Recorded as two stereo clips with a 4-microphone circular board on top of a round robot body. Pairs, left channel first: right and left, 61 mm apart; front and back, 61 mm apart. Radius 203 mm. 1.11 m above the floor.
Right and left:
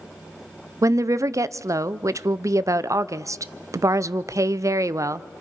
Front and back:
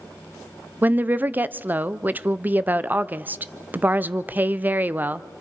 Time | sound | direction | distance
0.8 | a woman speaking | 120° left | 0.5 m